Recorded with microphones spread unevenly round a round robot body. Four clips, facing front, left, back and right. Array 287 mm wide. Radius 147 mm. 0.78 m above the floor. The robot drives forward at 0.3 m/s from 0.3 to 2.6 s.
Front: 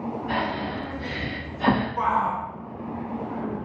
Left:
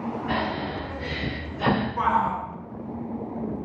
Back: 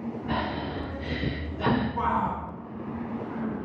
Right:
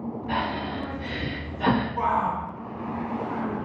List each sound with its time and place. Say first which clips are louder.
0.3 s breathing: right 1 dB, front 2 dB; 125° left, 1.1 m; by 1.9 s 140° left, 1.4 m
2.0 s a shout: left 1 dB, front 3 dB; 105° left, 0.9 m; by 2.4 s 115° left, 1.0 m